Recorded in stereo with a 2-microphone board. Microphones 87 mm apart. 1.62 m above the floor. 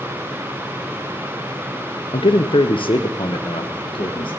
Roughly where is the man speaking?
Left.